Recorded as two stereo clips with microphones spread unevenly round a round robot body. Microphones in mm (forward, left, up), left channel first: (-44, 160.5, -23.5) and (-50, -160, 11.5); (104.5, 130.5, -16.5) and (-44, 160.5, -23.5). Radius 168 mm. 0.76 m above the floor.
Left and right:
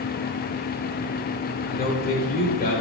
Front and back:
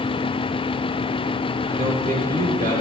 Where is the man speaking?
150° left, 4 m.